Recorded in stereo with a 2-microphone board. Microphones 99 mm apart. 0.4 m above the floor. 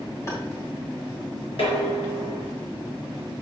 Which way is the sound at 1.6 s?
75° left (ahead or behind).